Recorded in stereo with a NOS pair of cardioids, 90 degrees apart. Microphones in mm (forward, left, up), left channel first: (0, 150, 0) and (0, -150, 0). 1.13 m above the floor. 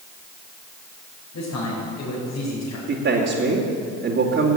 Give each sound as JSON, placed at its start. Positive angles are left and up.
{"t": 1.3, "sound": "a man speaking", "azimuth_deg": 60, "distance_m": 5.0}
{"t": 2.9, "sound": "a man speaking", "azimuth_deg": -45, "distance_m": 2.5}